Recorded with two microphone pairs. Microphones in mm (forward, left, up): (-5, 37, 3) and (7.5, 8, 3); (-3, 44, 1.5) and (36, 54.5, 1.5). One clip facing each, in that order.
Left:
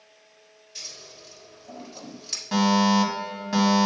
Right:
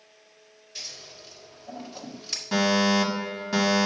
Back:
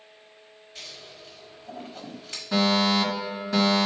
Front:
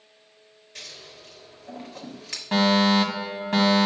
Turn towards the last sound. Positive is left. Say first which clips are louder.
# left 2 dB, front 3 dB
turn(degrees=30)